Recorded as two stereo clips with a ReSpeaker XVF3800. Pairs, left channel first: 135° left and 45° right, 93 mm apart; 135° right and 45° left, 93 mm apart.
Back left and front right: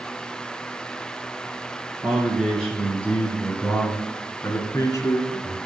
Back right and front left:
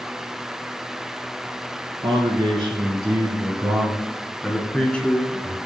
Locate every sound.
2.0 s a man speaking: 45° left, 2 m; by 5.6 s 170° left, 1.7 m